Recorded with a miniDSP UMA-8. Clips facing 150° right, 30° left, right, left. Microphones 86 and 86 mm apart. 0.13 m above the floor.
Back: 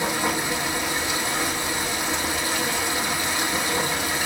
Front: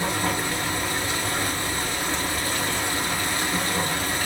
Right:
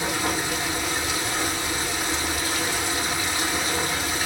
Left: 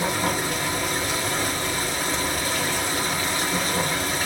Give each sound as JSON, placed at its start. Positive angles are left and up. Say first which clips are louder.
{"t": 0.0, "sound": "running water", "louder": "back 1 dB, left 2 dB", "azimuth_deg": 135, "distance_m": 3.5}